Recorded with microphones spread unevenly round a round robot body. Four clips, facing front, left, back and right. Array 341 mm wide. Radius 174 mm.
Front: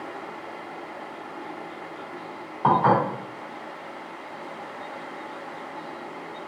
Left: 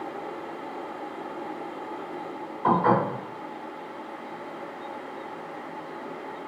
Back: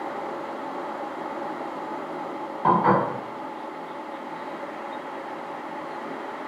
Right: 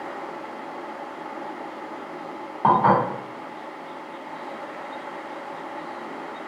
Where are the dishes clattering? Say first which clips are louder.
Right 4 dB, even; 70° right, 1.6 m.